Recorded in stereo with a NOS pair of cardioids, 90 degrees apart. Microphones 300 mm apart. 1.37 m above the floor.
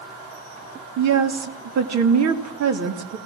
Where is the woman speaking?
65° right, 3 m.